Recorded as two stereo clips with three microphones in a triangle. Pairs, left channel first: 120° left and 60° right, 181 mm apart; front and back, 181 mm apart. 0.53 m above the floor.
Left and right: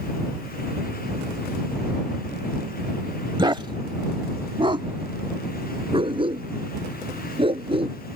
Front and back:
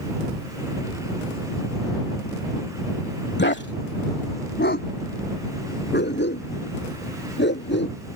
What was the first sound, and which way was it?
A dog barking, 5° left.